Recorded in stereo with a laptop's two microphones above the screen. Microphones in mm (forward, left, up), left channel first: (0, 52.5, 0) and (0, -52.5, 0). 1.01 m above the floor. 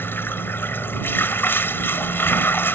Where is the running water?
20° left (ahead or behind).